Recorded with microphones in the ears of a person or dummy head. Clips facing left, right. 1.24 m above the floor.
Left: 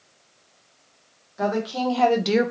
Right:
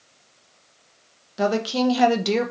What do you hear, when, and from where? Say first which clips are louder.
1.4 s a woman speaking: right 3 dB; 45° right (ahead or behind), 0.8 m; by 2.5 s 20° left (ahead or behind), 0.5 m